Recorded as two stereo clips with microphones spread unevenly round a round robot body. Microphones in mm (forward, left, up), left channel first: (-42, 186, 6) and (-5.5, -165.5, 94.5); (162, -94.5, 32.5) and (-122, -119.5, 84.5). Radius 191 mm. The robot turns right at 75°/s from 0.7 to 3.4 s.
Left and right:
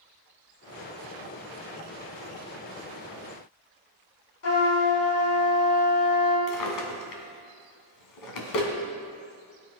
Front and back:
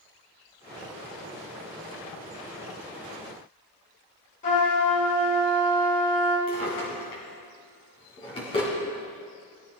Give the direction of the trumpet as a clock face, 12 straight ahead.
10 o'clock.